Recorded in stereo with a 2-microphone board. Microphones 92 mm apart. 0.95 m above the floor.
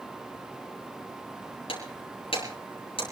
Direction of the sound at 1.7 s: 85° left.